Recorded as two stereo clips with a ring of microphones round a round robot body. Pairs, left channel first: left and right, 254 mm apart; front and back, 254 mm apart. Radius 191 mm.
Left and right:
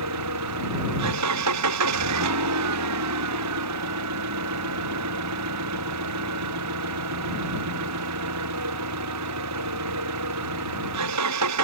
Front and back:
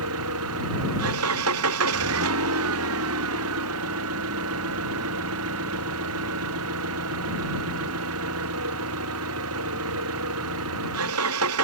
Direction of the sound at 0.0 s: 130° right.